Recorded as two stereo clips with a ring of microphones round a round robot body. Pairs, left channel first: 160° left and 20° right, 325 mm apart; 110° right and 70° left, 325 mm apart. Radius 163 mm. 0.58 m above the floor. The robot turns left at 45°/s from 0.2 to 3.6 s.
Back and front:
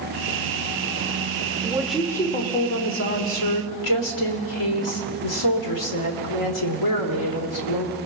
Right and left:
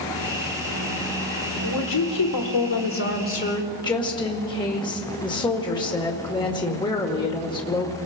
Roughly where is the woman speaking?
Right.